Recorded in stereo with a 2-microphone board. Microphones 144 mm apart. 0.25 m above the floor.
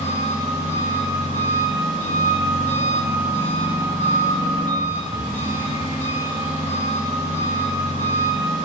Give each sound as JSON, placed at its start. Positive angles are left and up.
{"t": 0.0, "sound": "an engine running", "side_deg": 40, "distance_m": 1.0}